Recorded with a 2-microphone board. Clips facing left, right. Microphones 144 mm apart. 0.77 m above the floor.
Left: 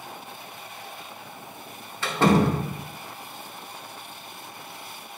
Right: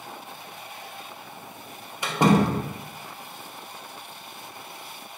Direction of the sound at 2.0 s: 15° right (ahead or behind).